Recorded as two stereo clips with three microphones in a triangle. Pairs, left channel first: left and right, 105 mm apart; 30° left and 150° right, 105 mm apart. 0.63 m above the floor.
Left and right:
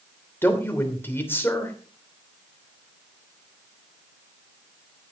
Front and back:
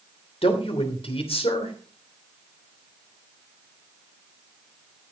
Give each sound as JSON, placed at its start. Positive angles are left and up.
{"t": 0.4, "sound": "a man speaking", "azimuth_deg": 25, "distance_m": 3.0}